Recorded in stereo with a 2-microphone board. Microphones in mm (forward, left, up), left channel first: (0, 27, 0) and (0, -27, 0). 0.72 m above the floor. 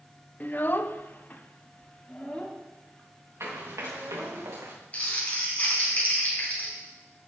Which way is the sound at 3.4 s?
60° right (ahead or behind).